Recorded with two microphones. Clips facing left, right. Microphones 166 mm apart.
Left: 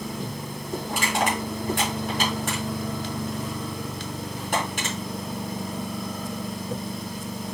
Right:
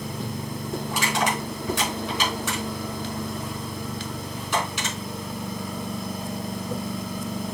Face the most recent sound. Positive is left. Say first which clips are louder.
# left 1 dB
turn(degrees=55)  # may be behind; listen again after turning